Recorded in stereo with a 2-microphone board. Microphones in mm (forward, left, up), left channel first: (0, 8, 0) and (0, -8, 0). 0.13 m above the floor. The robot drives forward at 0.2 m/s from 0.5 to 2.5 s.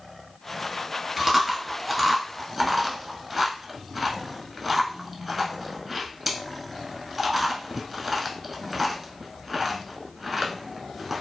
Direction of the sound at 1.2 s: 5° right (ahead or behind).